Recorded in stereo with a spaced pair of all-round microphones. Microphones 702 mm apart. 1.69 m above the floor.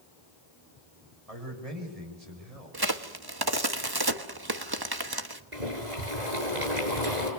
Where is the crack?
35° right (ahead or behind), 1.3 m.